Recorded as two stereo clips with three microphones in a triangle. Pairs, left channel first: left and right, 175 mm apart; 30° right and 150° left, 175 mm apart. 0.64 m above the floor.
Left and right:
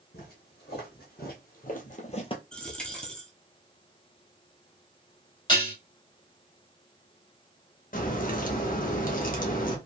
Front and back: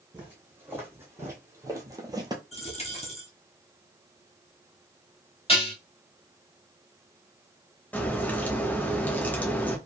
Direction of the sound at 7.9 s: 50° left.